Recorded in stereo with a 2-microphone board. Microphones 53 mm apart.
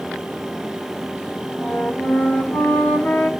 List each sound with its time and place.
1.6 s a flute: 35° left (ahead or behind), 1.2 m